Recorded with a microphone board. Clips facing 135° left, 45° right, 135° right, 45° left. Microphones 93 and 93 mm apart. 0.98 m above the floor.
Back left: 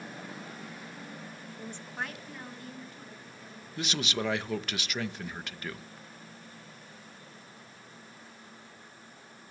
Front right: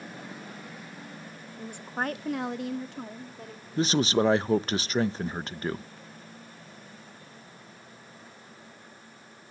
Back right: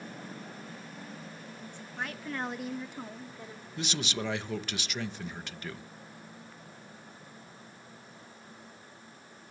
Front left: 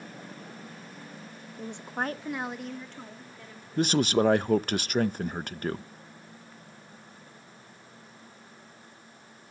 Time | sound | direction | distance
1.6 | a woman speaking | 45° left | 0.9 m
3.8 | a man speaking | 10° left | 0.6 m